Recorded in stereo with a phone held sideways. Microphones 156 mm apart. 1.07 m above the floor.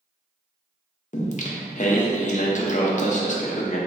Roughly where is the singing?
Left.